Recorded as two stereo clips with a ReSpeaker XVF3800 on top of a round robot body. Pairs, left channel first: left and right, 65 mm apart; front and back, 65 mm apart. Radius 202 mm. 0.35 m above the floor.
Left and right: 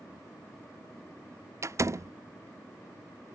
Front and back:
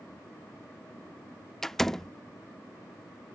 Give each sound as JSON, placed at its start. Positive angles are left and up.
{"t": 1.6, "sound": "a door slam", "azimuth_deg": -80}